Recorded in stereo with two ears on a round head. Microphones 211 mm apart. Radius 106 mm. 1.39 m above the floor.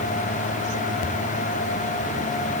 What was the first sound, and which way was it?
Only background noise.